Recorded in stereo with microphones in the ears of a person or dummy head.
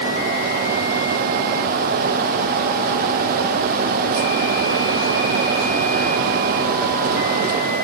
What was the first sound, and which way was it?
Only background noise.